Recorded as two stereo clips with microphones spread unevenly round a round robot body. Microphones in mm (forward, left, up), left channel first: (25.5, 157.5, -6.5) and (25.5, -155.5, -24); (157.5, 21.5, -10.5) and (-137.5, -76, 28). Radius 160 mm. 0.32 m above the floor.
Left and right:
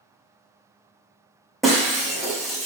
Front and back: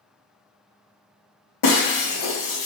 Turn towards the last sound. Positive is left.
turn(degrees=0)